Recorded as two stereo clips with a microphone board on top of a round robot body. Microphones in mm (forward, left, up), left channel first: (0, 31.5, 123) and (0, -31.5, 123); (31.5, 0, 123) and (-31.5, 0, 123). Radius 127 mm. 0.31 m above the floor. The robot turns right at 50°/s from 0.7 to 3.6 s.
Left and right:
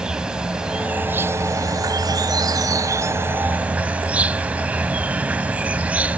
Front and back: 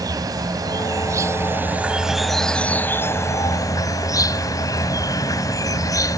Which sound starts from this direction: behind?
An insect, at 0.0 s.